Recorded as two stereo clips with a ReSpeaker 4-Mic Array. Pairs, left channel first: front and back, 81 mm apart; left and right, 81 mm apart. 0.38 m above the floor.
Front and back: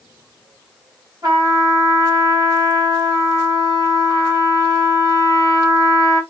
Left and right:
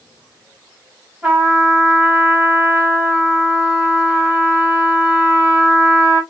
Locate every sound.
1.2 s a trumpet: 160° right, 2 m